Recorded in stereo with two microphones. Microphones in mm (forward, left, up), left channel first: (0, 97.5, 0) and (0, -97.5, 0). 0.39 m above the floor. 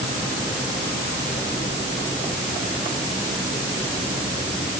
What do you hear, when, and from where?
Only background noise.